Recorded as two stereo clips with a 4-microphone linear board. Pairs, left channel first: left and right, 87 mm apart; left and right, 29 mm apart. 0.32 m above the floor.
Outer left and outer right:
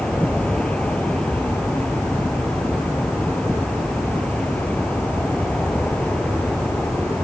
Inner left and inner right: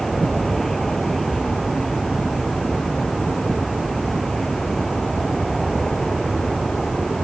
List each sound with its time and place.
0.0 s an aircraft: 10° left (ahead or behind)